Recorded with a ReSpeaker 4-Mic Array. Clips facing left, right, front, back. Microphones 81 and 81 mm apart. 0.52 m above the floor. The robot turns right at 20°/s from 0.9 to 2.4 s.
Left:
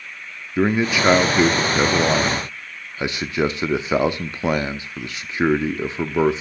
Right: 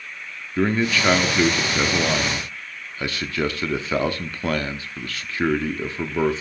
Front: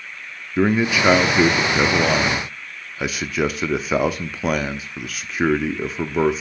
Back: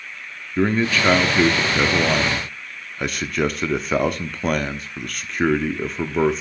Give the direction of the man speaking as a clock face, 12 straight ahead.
10 o'clock.